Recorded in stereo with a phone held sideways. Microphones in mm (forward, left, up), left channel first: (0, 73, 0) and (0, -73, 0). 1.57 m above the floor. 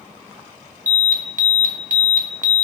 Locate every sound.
0.9 s an alarm: 65° right (ahead or behind), 1.4 m